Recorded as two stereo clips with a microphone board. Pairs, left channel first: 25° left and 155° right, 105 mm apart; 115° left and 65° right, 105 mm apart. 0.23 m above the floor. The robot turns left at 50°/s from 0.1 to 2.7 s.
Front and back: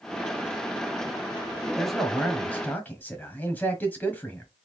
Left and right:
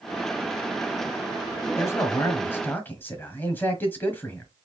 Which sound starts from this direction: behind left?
A man speaking, at 1.8 s.